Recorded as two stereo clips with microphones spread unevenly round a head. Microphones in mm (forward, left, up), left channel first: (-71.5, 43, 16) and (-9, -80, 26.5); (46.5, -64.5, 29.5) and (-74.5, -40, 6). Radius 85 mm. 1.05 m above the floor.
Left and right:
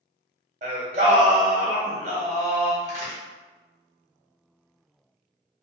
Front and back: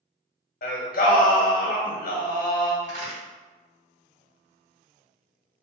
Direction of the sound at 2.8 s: 150° left.